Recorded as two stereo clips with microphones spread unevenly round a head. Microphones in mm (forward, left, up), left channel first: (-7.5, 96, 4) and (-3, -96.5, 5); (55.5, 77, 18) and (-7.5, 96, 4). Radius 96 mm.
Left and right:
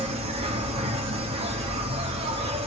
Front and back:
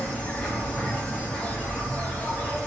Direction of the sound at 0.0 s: 60° right.